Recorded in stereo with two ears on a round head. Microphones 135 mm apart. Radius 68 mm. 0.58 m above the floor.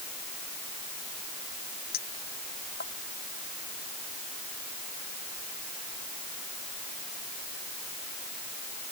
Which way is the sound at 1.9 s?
75° left (ahead or behind).